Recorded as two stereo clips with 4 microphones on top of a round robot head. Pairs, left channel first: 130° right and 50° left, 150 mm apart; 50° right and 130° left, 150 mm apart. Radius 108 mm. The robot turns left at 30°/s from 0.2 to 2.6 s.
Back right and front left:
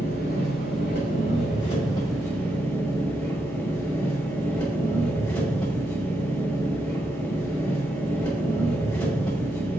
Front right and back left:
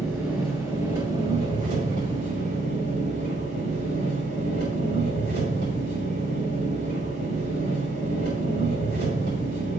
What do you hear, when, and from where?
0.0 s an engine running: 140° right, 6.5 m; by 9.8 s 145° left, 6.5 m